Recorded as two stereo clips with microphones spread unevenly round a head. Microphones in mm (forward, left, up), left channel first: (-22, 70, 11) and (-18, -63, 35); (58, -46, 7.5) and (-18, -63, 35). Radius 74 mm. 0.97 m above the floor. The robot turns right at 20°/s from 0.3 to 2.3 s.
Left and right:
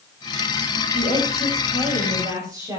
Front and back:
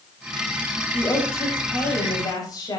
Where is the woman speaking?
45° right, 7 m; by 2.8 s 20° right, 7 m.